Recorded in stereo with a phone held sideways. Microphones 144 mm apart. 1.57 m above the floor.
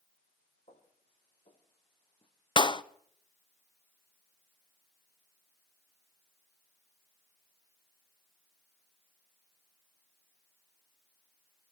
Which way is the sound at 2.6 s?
35° left (ahead or behind).